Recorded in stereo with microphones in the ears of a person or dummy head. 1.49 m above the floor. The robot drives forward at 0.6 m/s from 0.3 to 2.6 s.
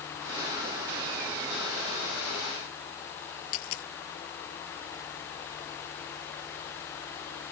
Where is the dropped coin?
75° left (ahead or behind).